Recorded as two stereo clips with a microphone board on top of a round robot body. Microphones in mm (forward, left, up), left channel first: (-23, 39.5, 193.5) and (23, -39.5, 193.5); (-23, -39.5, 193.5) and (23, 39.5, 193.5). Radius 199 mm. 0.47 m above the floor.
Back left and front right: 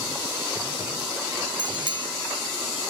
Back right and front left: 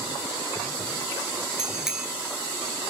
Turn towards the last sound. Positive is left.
turn(degrees=-25)